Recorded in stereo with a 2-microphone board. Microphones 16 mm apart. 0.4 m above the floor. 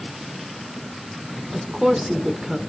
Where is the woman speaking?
25° right (ahead or behind), 1.1 m.